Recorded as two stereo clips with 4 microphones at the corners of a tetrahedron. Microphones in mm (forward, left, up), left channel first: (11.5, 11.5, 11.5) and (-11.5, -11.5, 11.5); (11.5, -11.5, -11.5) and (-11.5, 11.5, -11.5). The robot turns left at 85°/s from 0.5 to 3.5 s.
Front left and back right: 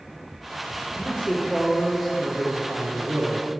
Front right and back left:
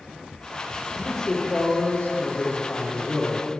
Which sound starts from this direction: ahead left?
A man speaking, at 1.0 s.